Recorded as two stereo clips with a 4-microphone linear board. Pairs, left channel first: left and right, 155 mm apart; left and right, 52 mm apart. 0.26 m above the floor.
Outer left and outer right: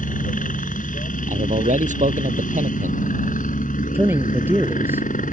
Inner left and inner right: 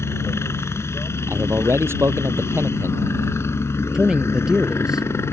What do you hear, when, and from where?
0.0 s a helicopter: 60° left (ahead or behind)
1.3 s a man speaking: 55° right (ahead or behind)
3.9 s a man speaking: 15° right (ahead or behind)